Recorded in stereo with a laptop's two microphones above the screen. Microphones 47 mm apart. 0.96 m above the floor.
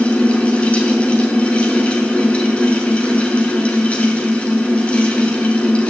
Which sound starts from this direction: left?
A fan, at 0.0 s.